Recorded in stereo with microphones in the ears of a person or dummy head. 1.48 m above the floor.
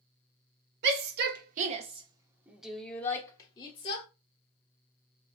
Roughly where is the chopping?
No chopping in this recording.